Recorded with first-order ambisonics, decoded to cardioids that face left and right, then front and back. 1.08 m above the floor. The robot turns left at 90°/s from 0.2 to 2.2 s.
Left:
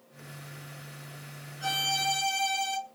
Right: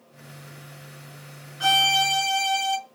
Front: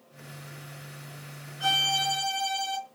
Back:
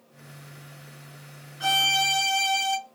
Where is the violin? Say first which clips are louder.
Right 9 dB, back 3 dB; 105° right, 0.6 m; by 2.8 s 160° right, 0.6 m.